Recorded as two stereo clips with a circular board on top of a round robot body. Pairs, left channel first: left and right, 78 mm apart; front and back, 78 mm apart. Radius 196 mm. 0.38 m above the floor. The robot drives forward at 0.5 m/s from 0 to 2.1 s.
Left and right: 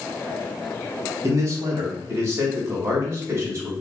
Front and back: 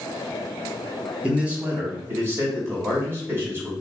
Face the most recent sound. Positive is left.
turn(degrees=-135)